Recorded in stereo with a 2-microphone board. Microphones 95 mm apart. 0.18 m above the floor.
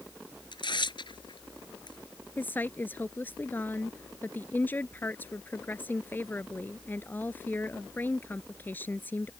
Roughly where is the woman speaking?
Left.